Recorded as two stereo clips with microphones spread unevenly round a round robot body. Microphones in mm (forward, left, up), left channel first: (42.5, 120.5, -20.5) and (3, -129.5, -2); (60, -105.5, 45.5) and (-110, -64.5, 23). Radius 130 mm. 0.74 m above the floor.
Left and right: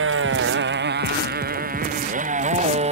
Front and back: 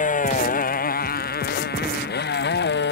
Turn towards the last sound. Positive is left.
turn(degrees=-35)